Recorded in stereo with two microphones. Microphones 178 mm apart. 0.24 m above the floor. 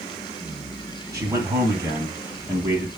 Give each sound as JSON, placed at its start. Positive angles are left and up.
{"t": 1.1, "sound": "a man speaking", "side_deg": -20, "distance_m": 1.9}